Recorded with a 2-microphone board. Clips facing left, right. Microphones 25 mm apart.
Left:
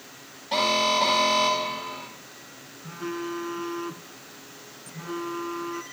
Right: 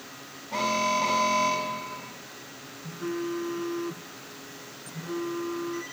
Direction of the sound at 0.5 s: 70° left (ahead or behind).